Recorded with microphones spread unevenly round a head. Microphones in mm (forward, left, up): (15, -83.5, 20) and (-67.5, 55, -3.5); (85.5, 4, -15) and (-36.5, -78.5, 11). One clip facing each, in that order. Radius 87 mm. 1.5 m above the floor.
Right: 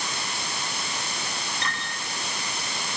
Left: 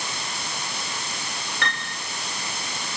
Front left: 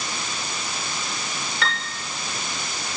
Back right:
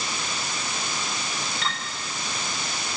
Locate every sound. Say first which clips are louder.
1.6 s a piano: left 2 dB, front left 3 dB; 80° left, 6.5 m